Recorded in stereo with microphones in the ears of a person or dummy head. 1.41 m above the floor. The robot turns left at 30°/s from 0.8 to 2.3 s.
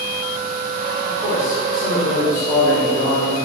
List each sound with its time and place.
1.1 s a man speaking: 175° left, 2.5 m; by 3.4 s 135° left, 2.5 m